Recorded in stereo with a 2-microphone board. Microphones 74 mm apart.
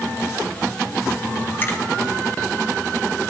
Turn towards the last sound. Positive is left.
turn(degrees=30)  # may be behind; listen again after turning